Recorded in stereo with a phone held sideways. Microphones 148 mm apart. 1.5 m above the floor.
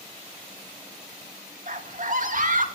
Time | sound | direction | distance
1.7 | a scream | 60° right (ahead or behind) | 3 m